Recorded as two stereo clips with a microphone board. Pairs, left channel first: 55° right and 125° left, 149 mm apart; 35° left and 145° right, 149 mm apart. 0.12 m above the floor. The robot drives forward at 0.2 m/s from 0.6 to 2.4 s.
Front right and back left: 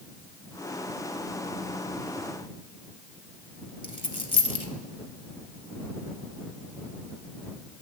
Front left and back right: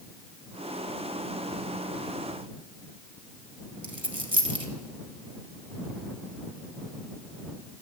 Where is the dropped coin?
100° right, 0.7 m.